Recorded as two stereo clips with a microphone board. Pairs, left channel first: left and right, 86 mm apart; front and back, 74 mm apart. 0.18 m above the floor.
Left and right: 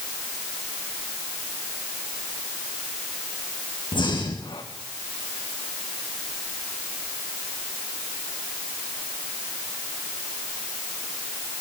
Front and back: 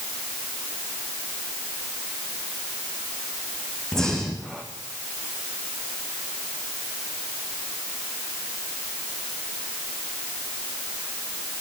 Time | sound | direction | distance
3.9 | breathing | 80° left | 5 m